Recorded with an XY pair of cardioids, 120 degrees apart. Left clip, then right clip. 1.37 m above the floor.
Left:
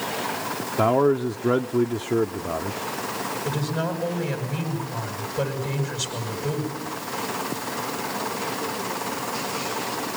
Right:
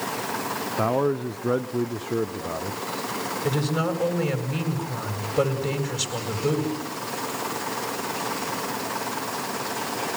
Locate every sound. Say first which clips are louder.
0.8 s a man speaking: left 5 dB; 15° left, 0.6 m
3.4 s a woman speaking: right 5 dB; 65° right, 7.5 m